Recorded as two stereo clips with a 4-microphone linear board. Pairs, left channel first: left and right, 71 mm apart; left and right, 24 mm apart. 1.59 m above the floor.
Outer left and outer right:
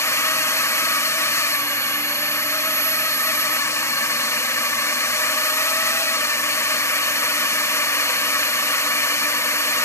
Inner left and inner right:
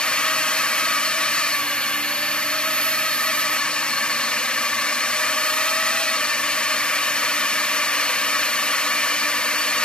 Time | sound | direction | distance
0.0 | a drone | 45° left (ahead or behind) | ?